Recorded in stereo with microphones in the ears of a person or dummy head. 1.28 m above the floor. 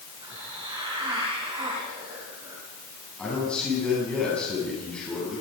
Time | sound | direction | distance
0.2 | a hiss | 25° right (ahead or behind) | 9 m
3.2 | a man speaking | 5° left (ahead or behind) | 9.5 m